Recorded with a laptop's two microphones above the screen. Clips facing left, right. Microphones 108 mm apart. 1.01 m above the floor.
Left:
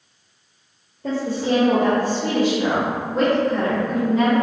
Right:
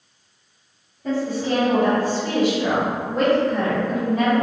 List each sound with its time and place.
1.0 s a woman speaking: 75° left (ahead or behind), 0.8 m; by 4.3 s 20° left (ahead or behind), 1.8 m